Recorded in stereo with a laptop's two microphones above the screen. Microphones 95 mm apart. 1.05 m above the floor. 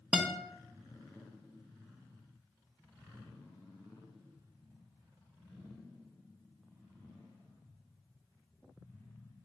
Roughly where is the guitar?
Centre.